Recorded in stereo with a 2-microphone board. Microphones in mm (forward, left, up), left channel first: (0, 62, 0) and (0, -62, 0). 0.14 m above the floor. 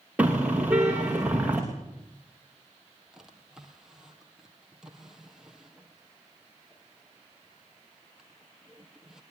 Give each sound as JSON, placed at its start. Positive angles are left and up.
{"t": 0.2, "sound": "a car horn", "side_deg": -10, "distance_m": 6.5}
{"t": 3.1, "sound": "a drawer", "side_deg": -5, "distance_m": 3.5}